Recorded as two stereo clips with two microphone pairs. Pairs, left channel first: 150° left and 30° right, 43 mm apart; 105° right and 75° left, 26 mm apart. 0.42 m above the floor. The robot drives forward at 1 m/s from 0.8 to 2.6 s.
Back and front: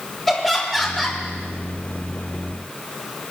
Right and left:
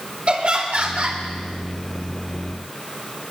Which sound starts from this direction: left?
Laughter, at 0.3 s.